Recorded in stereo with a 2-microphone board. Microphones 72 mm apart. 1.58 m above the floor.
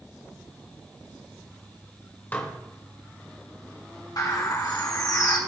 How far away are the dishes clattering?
About 1.2 m.